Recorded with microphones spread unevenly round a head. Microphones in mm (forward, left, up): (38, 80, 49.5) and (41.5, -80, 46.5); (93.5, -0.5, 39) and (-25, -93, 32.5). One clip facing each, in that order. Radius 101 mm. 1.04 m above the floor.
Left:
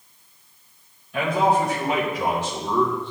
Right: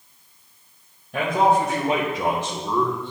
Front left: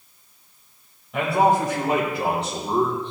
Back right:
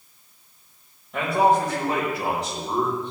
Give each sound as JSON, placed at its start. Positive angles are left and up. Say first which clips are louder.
{"t": 1.1, "sound": "a man speaking", "louder": "right 1 dB, front left 1 dB", "azimuth_deg": -50, "distance_m": 2.0}